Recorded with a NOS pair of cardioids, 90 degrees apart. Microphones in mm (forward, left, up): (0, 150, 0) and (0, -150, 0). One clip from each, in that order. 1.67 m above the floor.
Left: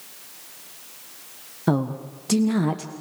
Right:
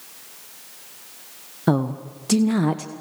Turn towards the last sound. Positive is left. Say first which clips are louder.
# right 2 dB
turn(degrees=-10)